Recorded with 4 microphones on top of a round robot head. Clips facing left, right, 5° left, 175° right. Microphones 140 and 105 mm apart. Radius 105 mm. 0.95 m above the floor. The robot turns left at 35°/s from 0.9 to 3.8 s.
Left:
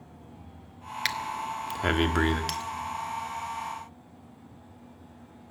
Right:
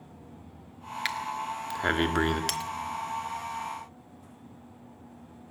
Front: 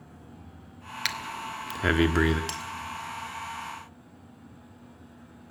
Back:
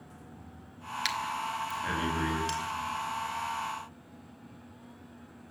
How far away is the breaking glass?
About 1.1 m.